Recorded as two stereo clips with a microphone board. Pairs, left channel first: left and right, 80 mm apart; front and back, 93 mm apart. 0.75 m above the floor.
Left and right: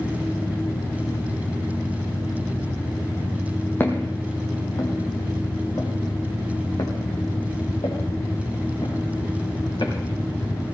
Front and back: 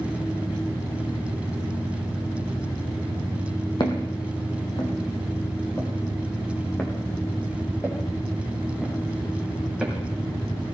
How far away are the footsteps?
About 2 m.